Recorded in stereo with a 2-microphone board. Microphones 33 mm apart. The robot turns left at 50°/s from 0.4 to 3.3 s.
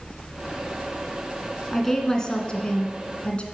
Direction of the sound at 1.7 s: 170° left.